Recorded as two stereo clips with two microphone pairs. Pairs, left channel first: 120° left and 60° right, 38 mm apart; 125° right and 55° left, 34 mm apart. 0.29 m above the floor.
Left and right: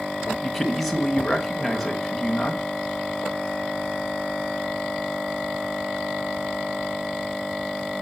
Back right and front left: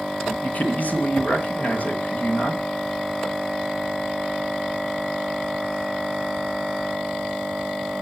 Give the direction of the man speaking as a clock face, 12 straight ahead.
5 o'clock.